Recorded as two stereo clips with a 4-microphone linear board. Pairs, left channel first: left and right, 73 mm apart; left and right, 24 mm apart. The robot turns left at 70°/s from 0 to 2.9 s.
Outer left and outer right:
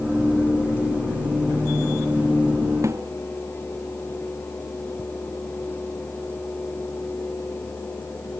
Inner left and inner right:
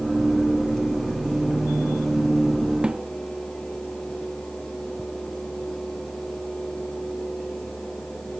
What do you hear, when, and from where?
2.8 s a snare drum: 45° right (ahead or behind); by 3.1 s 40° right (ahead or behind)